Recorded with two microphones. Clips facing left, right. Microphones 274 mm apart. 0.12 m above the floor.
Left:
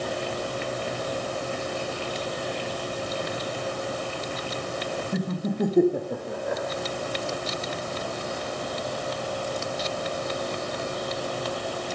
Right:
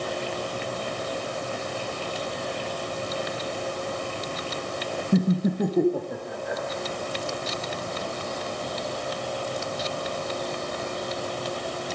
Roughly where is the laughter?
Right.